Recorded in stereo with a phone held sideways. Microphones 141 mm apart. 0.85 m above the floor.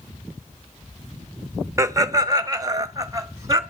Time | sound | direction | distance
1.8 | laughter | 20° right (ahead or behind) | 0.5 m